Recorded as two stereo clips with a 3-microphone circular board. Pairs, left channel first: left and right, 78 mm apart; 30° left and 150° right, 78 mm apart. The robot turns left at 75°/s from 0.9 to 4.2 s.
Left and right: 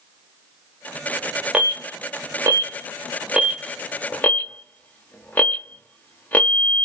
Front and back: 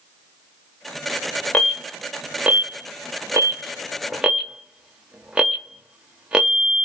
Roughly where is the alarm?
Ahead.